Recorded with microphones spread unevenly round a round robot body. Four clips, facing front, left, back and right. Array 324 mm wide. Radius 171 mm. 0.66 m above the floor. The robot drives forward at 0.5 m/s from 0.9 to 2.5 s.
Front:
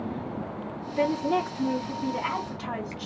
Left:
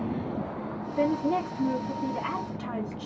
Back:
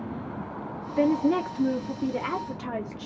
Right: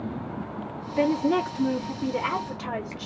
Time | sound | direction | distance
1.0 | a woman speaking | 175° right | 0.8 m